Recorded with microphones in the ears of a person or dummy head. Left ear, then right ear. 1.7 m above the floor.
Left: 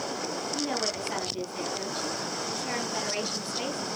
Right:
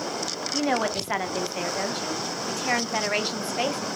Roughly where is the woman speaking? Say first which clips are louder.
Right 7 dB; right.